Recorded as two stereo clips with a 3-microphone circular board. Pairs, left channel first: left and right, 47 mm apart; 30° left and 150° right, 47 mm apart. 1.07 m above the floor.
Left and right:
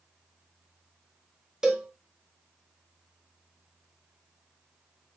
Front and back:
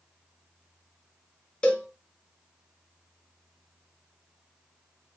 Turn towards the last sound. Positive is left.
turn(degrees=-25)